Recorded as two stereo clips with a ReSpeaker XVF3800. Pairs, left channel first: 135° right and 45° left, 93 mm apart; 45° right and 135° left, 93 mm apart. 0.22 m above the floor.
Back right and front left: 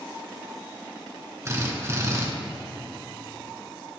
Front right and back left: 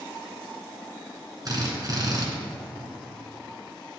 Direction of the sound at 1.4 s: 100° left.